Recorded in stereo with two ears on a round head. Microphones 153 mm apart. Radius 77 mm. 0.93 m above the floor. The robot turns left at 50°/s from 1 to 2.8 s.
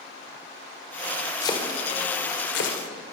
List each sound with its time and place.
1.4 s chopping: 20° left (ahead or behind), 4 m; by 2.8 s 80° left, 4 m